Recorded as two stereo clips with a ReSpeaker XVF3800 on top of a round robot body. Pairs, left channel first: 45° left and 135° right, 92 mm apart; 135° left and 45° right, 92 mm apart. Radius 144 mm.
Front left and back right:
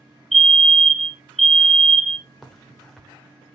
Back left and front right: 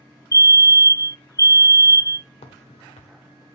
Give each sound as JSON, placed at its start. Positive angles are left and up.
{"t": 0.3, "sound": "a fire alarm", "azimuth_deg": 130, "distance_m": 1.3}
{"t": 2.4, "sound": "a crack", "azimuth_deg": 130, "distance_m": 1.1}